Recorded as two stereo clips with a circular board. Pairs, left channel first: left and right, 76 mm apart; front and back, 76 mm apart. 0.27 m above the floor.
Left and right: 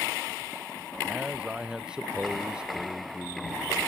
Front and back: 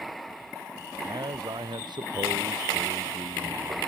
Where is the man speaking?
170° right.